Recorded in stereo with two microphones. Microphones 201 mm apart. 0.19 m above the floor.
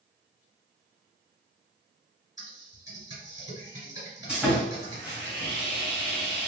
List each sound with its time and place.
2.4 s typing on a keyboard: 20° right (ahead or behind), 1.8 m
4.3 s sawing: 5° right (ahead or behind), 1.9 m